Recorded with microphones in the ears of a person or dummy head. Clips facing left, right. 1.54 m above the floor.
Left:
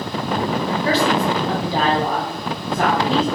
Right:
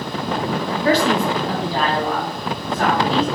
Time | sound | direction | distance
0.8 | a man speaking | 45° right (ahead or behind) | 0.6 m